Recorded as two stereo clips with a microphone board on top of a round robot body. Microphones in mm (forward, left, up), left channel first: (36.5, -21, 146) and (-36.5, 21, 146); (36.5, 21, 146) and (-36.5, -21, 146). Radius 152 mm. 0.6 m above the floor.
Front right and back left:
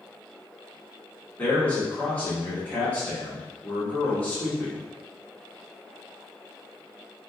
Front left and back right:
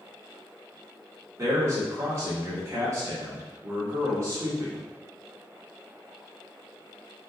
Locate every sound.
1.4 s a man speaking: 100° right, 1.5 m